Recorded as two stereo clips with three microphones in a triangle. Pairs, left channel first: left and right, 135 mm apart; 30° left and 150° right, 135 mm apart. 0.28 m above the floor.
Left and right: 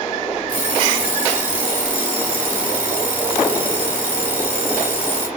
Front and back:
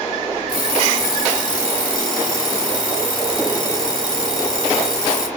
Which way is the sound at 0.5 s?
105° right.